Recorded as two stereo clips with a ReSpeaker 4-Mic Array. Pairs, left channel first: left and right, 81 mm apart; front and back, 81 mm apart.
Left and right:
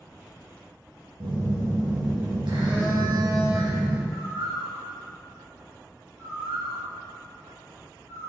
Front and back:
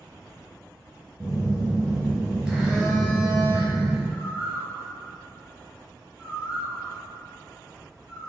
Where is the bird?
105° right, 2.5 m.